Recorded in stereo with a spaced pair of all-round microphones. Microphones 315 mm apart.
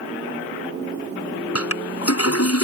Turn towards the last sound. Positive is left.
turn(degrees=50)  # may be behind; listen again after turning